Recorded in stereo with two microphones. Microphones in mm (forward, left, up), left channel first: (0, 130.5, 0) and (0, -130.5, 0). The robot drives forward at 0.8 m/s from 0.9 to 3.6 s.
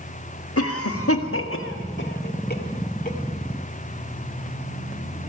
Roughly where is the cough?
Left.